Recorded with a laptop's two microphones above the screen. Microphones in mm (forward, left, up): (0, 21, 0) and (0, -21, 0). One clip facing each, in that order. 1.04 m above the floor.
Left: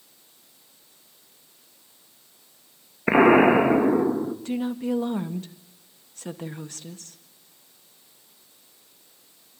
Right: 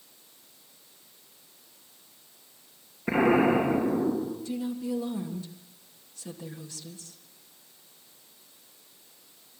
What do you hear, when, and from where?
3.1 s an explosion: 50° left (ahead or behind), 1.7 m
4.5 s a woman speaking: 50° left (ahead or behind), 1.6 m